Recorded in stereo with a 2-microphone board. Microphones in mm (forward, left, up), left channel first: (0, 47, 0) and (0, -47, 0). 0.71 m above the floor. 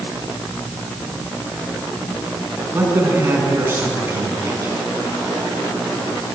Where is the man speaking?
25° right (ahead or behind), 6 m.